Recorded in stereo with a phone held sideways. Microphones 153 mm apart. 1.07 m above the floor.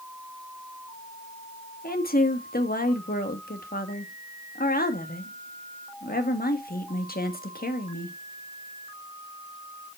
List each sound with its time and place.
1.8 s a woman speaking: 75° left (ahead or behind), 1.5 m